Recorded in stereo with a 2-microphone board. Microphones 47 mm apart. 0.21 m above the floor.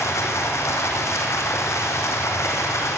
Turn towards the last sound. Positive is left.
turn(degrees=80)